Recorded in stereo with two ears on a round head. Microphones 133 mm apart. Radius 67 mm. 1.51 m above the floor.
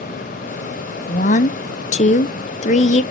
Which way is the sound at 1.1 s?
55° left (ahead or behind).